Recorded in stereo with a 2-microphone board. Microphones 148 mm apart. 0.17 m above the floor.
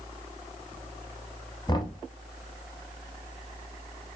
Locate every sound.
1.7 s knocking: 30° left (ahead or behind), 0.8 m